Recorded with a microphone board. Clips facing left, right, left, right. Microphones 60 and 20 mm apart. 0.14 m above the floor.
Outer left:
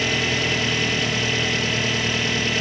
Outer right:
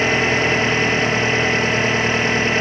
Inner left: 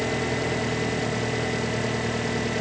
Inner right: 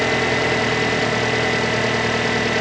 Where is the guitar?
I don't hear a guitar.